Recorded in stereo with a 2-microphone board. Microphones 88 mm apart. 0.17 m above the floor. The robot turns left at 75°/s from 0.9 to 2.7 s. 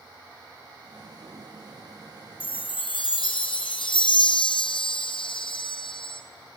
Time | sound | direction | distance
2.4 | a chime | 80° left | 1.9 m